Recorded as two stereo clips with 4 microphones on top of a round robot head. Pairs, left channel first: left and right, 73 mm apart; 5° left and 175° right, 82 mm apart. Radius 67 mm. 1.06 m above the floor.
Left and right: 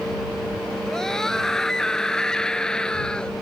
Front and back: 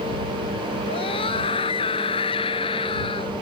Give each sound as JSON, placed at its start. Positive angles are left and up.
{"t": 0.9, "sound": "a scream", "azimuth_deg": 5}